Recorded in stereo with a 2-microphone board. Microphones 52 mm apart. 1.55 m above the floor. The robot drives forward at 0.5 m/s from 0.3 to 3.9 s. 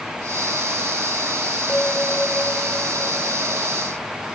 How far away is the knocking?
No knocking in this recording.